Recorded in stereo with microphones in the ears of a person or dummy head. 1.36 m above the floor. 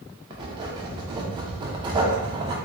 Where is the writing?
30° right (ahead or behind), 0.7 m.